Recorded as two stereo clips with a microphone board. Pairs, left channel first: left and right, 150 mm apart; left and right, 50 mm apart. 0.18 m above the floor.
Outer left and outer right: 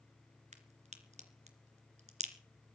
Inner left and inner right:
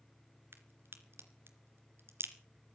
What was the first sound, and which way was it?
A crack, 50° right (ahead or behind).